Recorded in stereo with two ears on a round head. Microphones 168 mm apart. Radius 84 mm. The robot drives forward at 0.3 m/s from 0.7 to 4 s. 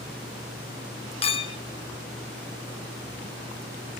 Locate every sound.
1.2 s a clink: 30° left (ahead or behind), 0.6 m; by 1.6 s 25° left (ahead or behind), 0.7 m